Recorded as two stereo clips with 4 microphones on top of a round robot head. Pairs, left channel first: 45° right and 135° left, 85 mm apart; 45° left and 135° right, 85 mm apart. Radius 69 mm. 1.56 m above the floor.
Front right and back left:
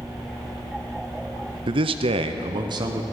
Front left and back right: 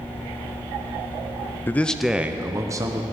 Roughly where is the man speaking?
Left.